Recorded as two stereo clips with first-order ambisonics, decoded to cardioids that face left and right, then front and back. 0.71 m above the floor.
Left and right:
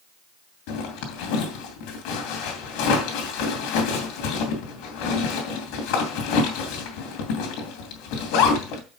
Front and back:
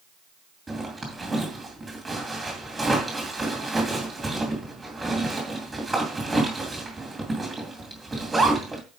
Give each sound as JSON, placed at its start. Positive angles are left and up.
{"t": 0.7, "sound": "a zipper", "azimuth_deg": 100, "distance_m": 2.5}